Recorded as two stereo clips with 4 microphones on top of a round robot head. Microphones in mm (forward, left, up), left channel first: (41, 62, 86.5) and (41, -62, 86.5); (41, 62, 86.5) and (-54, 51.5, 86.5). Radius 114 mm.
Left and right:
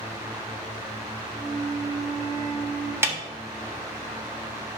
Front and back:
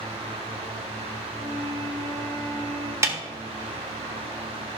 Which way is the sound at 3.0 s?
140° right.